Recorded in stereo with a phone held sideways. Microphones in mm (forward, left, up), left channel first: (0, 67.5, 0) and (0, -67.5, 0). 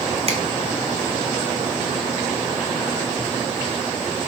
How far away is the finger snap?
About 2 m.